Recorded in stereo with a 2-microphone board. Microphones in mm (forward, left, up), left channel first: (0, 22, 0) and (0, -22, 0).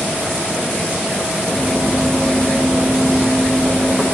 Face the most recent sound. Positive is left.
turn(degrees=-35)  # may be behind; listen again after turning